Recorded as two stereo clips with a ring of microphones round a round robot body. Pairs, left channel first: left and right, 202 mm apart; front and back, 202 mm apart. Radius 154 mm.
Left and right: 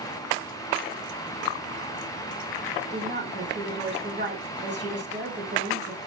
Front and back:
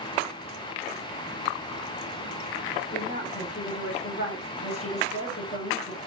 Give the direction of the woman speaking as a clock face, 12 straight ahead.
2 o'clock.